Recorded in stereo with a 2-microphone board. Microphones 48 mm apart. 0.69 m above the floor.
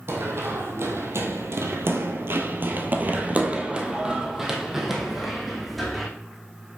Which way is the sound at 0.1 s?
60° right (ahead or behind).